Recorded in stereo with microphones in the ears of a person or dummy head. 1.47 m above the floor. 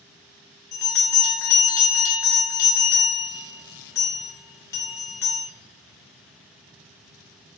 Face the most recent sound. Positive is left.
turn(degrees=15)  # may be behind; listen again after turning